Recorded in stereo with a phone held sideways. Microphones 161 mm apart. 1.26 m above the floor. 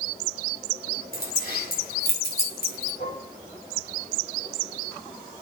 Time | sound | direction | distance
1.1 | keys jangling | 75° left (ahead or behind) | 4 m
3.0 | dishes clattering | 85° left | 6.5 m